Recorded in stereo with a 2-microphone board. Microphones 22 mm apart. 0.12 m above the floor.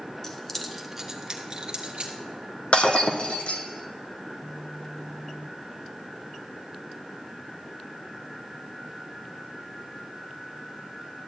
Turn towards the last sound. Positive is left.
turn(degrees=60)  # may be behind; listen again after turning